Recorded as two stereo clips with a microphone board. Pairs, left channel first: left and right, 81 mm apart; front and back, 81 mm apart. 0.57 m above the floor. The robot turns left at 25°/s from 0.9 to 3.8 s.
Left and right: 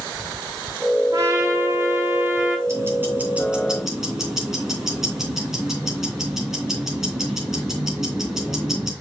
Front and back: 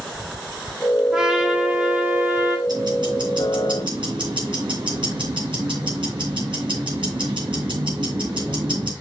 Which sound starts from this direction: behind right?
Ticking, at 2.7 s.